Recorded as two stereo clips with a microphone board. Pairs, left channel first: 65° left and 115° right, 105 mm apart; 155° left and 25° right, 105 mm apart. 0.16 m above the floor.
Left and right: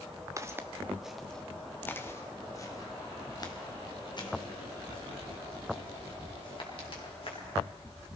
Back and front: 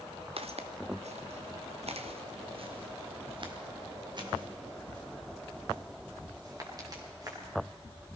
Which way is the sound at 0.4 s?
50° right.